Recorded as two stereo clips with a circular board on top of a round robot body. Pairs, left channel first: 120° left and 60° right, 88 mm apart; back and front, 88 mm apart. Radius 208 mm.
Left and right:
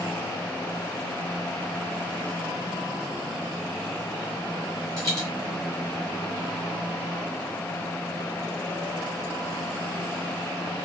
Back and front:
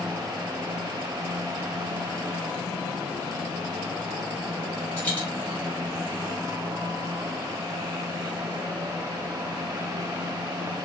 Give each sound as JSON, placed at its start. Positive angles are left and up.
{"t": 5.0, "sound": "a dropped coin", "azimuth_deg": -110, "distance_m": 1.6}